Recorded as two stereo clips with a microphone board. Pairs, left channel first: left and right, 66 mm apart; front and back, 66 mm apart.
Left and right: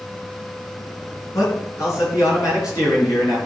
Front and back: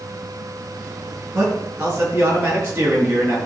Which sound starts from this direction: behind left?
A man speaking, at 1.3 s.